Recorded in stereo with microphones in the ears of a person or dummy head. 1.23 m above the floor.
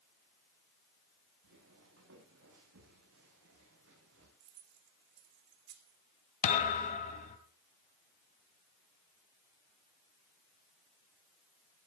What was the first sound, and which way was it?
Footsteps, 80° right.